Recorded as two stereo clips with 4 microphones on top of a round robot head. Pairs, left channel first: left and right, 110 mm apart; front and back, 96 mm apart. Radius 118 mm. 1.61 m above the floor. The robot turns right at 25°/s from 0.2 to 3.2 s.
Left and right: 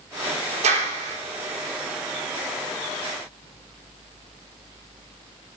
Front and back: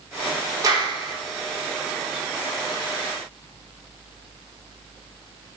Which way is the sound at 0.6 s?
120° right.